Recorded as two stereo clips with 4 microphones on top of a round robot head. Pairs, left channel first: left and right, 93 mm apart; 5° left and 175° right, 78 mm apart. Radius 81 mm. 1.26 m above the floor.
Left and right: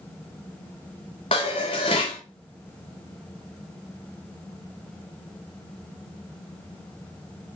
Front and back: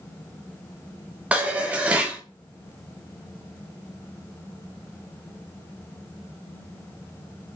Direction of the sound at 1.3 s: 120° left.